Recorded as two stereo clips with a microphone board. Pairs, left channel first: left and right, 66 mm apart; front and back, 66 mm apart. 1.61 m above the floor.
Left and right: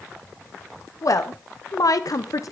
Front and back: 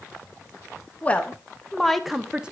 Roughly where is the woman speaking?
Ahead left.